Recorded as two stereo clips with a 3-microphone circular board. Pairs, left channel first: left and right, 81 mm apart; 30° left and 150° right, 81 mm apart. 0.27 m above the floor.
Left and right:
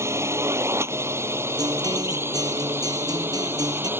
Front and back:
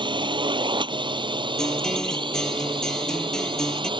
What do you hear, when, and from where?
0.0 s a drone: 145° right; by 4.0 s 155° right
1.6 s a guitar: 55° right